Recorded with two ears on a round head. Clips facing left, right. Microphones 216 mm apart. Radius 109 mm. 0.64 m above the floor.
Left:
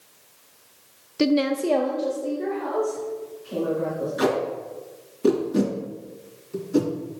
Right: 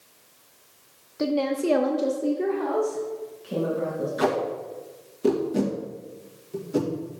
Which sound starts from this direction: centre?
Tape being pulled, at 4.2 s.